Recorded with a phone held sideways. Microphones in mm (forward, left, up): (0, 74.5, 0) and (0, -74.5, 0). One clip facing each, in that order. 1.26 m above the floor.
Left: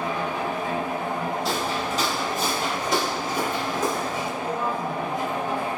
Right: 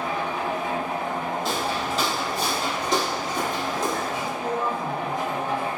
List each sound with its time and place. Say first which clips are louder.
0.0 s a machine running: even; 25° left (ahead or behind), 1.4 m
1.4 s footsteps: even; centre (ahead or behind), 1.6 m; by 4.3 s 10° left (ahead or behind), 1.3 m
4.4 s a woman speaking: right 1 dB; 40° right (ahead or behind), 0.8 m